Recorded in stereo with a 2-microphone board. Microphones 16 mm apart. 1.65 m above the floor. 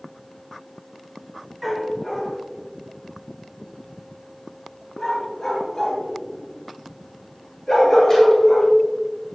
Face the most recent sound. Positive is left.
turn(degrees=30)  # may be behind; listen again after turning